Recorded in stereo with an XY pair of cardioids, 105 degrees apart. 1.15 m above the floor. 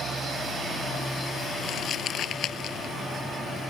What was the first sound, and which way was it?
Crumpling, 65° left.